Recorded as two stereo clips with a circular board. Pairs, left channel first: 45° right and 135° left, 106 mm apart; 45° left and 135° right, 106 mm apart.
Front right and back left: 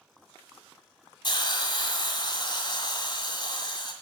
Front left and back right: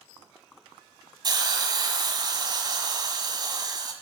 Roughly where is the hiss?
Right.